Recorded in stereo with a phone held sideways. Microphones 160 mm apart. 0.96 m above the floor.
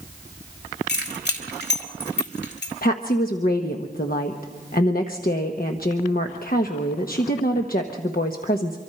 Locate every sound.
0.9 s keys jangling: 85° left, 2.5 m
2.8 s a woman speaking: 60° left (ahead or behind), 1.0 m